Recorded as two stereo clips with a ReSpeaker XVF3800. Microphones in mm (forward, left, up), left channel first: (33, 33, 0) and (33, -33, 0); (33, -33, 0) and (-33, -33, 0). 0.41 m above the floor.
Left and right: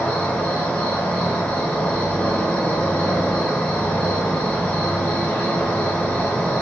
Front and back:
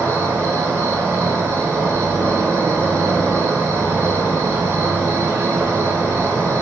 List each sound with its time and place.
0.0 s an insect: 160° left, 1.0 m